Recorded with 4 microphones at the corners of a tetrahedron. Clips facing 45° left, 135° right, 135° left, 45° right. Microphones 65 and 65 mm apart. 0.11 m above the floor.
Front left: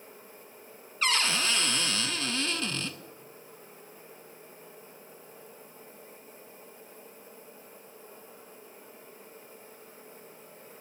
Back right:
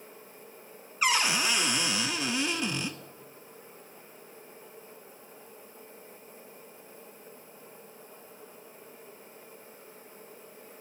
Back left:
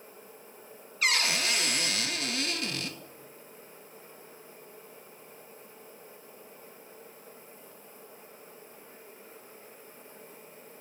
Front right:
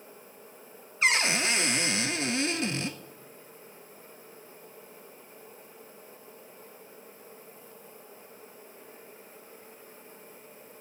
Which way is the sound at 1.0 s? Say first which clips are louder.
Back right 2 dB, front right 3 dB; 70° right.